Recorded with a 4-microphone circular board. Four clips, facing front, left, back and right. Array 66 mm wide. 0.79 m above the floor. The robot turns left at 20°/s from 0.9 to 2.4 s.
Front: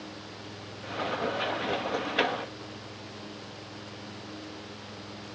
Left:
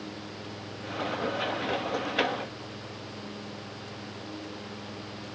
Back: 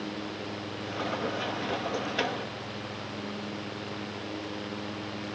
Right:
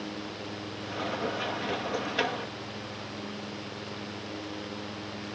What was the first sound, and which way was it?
Only background noise.